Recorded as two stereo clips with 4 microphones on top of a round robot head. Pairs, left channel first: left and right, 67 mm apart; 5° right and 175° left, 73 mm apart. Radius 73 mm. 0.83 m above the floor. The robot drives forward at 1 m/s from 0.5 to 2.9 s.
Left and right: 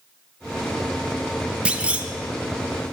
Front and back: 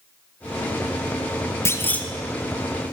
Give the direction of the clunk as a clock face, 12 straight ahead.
1 o'clock.